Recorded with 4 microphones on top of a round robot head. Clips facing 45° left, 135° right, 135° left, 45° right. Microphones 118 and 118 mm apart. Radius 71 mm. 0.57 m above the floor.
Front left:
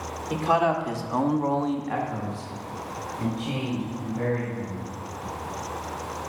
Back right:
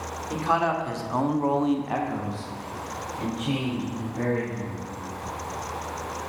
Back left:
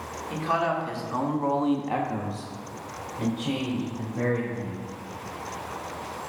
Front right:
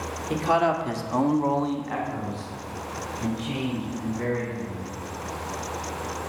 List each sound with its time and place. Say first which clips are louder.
0.3 s a man speaking: front left 2 dB, front right 4 dB; 35° right, 1.5 m; by 4.8 s 155° left, 3.5 m